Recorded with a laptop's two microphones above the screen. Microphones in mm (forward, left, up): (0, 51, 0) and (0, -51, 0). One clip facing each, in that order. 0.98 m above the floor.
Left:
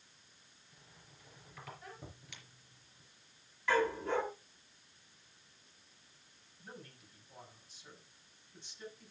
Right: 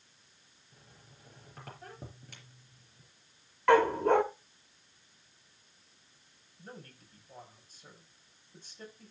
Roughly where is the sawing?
No sawing in this recording.